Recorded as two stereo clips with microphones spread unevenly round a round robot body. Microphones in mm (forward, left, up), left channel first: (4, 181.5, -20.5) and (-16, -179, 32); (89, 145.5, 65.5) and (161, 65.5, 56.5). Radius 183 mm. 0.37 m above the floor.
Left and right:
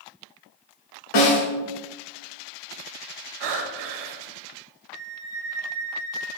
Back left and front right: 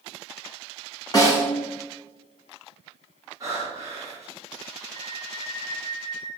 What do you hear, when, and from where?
1.1 s a snare drum: 75° left, 3.5 m
3.4 s breathing: 110° right, 1.1 m
4.9 s a flute: 145° right, 3.5 m